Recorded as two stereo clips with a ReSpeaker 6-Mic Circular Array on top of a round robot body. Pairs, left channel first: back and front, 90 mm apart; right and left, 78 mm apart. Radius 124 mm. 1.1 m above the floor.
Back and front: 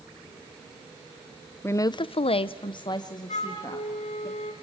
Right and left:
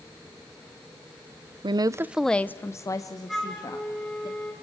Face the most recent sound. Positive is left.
turn(degrees=-175)